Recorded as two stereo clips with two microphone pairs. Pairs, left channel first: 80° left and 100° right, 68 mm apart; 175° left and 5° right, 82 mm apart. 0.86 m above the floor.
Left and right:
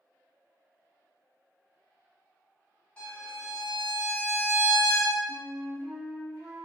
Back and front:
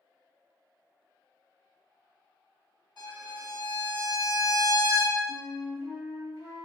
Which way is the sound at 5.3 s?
165° right.